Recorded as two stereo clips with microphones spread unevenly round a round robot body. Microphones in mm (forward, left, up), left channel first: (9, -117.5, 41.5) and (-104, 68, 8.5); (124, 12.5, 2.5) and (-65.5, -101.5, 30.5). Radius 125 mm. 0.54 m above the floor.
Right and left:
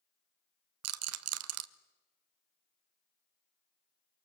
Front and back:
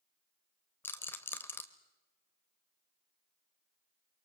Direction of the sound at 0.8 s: 110° left.